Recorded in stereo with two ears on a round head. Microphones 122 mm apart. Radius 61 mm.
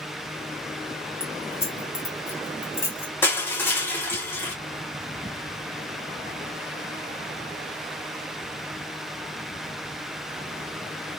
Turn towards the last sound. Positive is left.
turn(degrees=15)  # may be behind; listen again after turning